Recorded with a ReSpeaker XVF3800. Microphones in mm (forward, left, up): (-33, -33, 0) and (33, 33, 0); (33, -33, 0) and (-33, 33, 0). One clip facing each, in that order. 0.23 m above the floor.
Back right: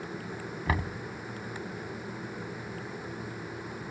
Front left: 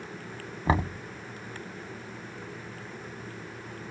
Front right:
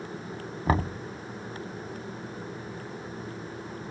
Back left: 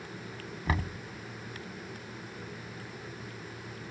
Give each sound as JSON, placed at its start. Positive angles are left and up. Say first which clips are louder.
{"t": 0.7, "sound": "knocking", "louder": "front left 6 dB, front right 7 dB", "azimuth_deg": -10}